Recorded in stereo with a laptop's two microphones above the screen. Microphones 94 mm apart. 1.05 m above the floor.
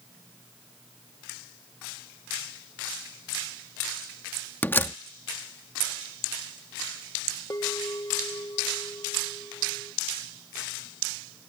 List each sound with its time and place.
4.6 s a door slam: 20° left (ahead or behind)
7.5 s a bell: 40° left (ahead or behind)